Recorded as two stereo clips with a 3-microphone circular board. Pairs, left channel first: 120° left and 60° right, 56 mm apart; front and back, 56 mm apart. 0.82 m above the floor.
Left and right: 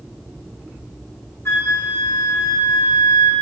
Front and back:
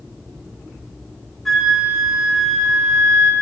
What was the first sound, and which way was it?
A flute, 85° left.